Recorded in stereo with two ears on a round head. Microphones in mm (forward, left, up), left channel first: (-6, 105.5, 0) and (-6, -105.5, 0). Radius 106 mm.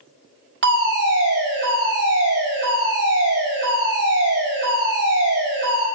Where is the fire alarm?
55° right (ahead or behind), 4.5 m.